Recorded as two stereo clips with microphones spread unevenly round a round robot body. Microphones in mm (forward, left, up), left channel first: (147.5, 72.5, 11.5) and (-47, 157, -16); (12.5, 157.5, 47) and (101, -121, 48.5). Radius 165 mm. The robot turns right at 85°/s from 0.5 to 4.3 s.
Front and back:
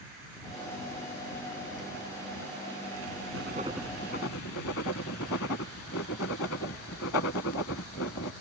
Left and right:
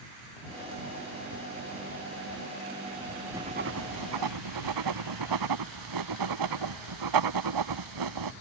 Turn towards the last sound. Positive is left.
turn(degrees=-75)